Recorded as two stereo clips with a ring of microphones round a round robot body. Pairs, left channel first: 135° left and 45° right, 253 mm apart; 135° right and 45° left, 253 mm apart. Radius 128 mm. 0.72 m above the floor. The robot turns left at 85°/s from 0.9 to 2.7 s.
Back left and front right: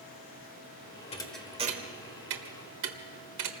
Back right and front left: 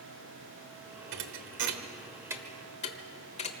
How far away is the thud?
About 1.5 m.